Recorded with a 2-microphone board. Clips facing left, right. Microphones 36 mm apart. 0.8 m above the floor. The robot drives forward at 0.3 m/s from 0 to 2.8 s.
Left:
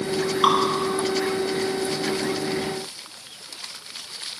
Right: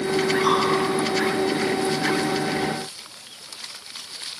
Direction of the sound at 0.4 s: 70° left (ahead or behind).